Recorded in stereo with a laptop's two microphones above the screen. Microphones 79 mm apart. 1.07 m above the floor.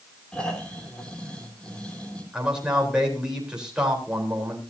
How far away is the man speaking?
About 3.5 m.